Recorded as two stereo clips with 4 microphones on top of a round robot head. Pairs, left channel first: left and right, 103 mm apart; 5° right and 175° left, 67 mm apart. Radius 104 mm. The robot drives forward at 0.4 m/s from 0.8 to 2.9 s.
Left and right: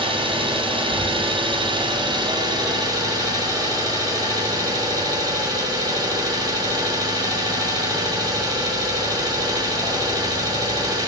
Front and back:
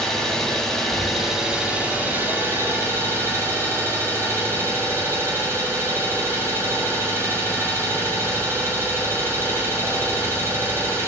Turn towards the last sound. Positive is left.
turn(degrees=-135)